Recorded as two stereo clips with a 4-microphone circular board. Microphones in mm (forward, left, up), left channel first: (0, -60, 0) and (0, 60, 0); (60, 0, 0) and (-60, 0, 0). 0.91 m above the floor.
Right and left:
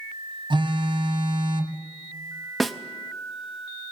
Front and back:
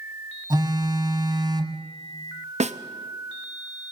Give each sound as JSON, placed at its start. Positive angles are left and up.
{"t": 0.5, "sound": "a phone buzzing", "azimuth_deg": 130, "distance_m": 1.4}
{"t": 2.6, "sound": "a snare drum", "azimuth_deg": 180, "distance_m": 0.7}